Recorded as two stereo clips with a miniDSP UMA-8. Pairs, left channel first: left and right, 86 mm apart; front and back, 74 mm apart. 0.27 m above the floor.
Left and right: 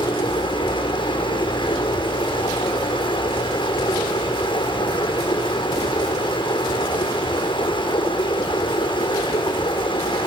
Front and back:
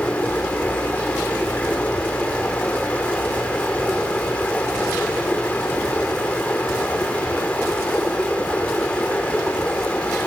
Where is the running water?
75° left, 6 m.